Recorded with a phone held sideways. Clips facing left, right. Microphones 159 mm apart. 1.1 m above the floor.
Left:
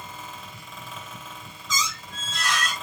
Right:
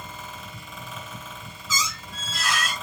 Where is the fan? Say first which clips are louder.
Right 1 dB; 5° right (ahead or behind), 1.9 m.